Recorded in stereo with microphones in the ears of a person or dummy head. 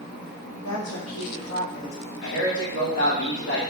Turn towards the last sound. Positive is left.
turn(degrees=50)  # may be behind; listen again after turning